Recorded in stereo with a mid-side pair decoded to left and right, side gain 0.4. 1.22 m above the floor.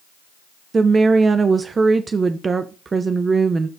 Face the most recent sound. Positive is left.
turn(degrees=-40)